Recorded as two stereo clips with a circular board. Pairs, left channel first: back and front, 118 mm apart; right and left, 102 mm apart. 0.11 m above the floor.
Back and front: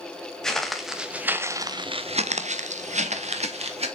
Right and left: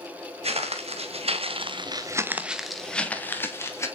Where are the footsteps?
95° left, 1.9 m; by 3.9 s 30° right, 2 m.